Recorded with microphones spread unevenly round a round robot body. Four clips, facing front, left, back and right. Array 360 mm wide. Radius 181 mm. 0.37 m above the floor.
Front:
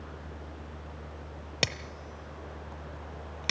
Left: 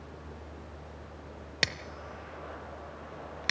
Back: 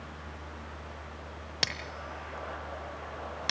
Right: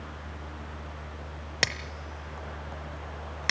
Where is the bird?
No bird in this recording.